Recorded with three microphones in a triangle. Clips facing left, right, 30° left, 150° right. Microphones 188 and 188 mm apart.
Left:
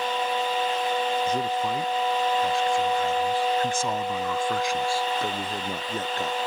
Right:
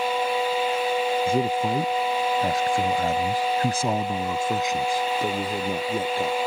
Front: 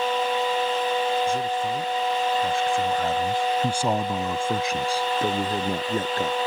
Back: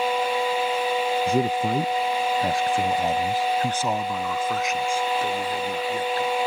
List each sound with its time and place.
1.3 s a man speaking: 150° right; by 6.4 s 10° right